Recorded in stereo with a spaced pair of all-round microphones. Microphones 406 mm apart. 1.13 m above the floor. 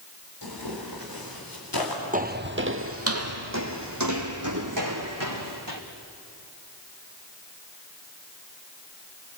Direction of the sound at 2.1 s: 20° right (ahead or behind).